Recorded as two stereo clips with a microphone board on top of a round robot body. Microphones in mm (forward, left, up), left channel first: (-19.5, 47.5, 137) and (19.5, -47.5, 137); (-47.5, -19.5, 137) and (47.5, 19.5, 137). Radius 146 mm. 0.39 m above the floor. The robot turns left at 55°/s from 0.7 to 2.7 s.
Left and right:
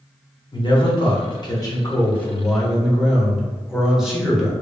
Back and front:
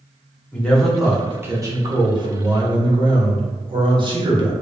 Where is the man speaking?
125° left, 1.3 m; by 4.5 s 15° left, 1.3 m.